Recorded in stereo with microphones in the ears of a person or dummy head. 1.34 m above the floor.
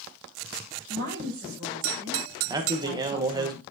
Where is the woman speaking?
50° right (ahead or behind), 6 m.